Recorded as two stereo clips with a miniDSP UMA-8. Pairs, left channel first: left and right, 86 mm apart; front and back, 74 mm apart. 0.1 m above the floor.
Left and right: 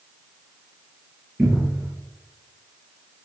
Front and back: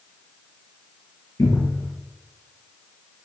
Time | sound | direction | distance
1.4 | a cupboard door | 10° right | 2.0 m